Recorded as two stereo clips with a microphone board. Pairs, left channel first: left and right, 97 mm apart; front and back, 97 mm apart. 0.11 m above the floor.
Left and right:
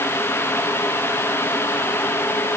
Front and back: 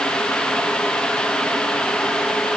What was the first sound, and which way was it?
Only background noise.